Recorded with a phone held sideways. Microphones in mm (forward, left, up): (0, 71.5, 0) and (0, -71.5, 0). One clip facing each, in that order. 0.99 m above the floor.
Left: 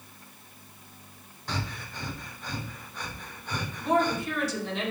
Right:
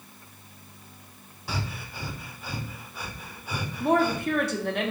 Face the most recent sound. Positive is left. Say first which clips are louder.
# right 2 dB
turn(degrees=-55)  # may be behind; listen again after turning